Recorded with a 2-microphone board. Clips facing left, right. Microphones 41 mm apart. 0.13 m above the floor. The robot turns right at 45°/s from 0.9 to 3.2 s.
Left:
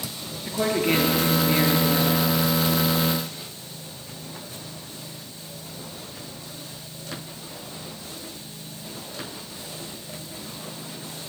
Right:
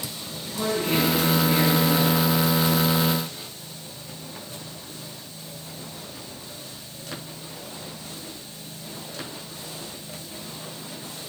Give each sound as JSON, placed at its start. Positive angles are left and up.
{"t": 0.5, "sound": "a woman speaking", "azimuth_deg": 135, "distance_m": 2.0}